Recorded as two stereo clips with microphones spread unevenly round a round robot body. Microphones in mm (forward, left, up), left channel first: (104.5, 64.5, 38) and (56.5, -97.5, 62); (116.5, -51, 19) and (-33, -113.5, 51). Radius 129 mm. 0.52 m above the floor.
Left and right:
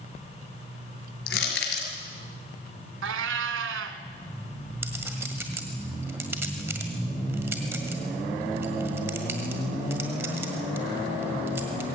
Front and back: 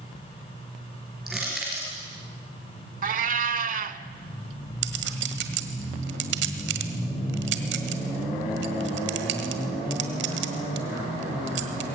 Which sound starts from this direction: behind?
A clink, at 4.8 s.